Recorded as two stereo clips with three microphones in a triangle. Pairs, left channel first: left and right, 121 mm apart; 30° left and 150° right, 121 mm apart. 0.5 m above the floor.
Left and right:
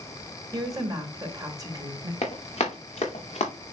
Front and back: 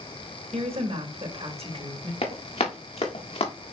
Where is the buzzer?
No buzzer in this recording.